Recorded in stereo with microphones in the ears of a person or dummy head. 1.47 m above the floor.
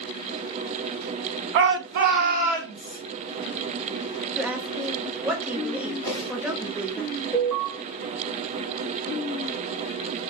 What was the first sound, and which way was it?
A shout, 65° right (ahead or behind).